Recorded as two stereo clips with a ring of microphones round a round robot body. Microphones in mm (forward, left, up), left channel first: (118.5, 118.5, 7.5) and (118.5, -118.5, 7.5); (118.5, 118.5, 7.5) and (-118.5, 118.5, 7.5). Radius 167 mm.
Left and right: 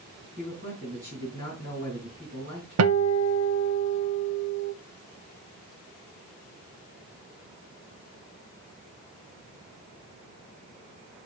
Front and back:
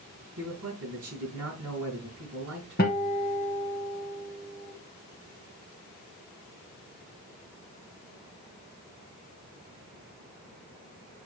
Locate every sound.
0.4 s a man speaking: 150° right, 3.5 m
2.8 s a guitar: 65° right, 0.6 m